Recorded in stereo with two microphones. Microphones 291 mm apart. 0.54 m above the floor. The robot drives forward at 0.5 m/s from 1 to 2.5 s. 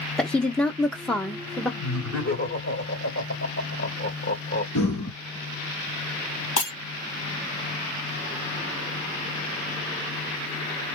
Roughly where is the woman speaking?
Centre.